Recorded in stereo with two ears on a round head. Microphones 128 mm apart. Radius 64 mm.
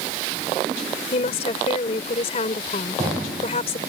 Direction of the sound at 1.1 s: 45° left (ahead or behind).